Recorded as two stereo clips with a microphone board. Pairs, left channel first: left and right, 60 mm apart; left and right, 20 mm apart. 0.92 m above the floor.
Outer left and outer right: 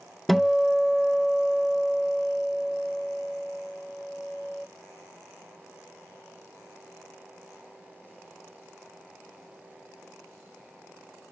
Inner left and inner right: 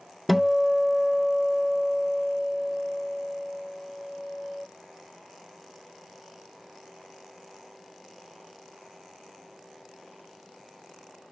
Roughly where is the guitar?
Centre.